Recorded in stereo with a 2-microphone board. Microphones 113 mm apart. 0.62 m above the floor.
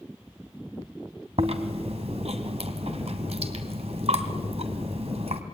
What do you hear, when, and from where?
1.4 s chewing: 65° right (ahead or behind), 1.9 m